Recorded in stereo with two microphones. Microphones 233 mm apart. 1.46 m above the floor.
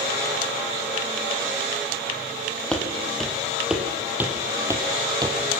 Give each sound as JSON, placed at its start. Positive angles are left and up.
{"t": 2.7, "sound": "footsteps", "side_deg": 5, "distance_m": 3.0}